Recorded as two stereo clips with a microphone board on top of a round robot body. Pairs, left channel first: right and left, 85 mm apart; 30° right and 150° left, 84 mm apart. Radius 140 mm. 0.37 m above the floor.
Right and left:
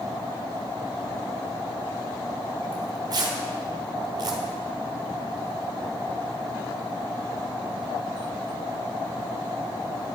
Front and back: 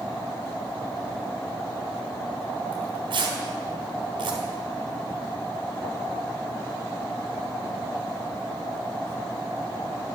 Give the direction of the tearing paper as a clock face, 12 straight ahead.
8 o'clock.